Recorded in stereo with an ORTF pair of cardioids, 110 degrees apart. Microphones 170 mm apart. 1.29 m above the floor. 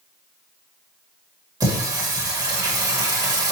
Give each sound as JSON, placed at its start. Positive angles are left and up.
{"t": 1.6, "sound": "singing", "azimuth_deg": -20, "distance_m": 1.4}